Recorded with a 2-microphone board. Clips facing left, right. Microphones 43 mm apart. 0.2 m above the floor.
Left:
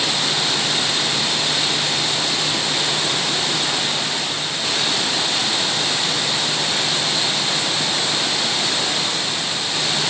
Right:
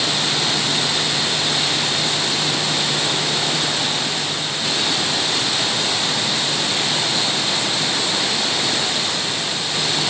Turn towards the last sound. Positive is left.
No sound to turn to.